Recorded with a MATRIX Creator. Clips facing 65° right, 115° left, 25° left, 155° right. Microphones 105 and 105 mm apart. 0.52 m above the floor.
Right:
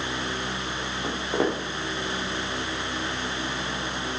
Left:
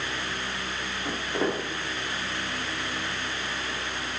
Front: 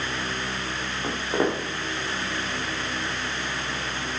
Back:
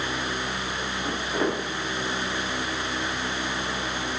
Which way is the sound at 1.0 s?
30° right.